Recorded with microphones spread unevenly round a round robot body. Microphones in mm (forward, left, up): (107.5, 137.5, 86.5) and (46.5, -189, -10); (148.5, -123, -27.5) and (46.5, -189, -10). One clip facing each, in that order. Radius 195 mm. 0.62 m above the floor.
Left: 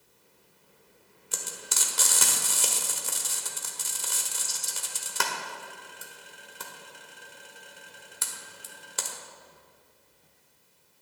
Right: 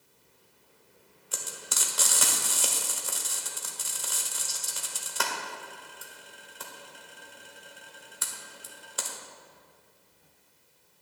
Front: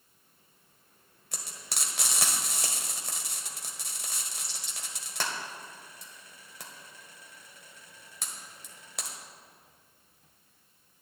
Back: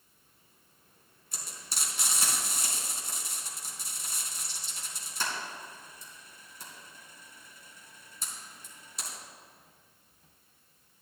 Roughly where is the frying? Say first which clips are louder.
Left 1 dB, front 2 dB; ahead.